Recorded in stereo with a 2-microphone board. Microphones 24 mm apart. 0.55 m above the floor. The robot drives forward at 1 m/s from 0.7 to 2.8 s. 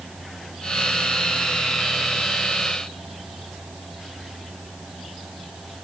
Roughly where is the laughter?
I don't hear laughter.